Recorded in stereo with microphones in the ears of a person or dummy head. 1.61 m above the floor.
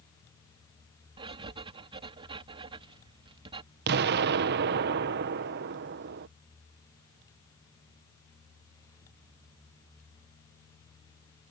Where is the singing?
I don't hear singing.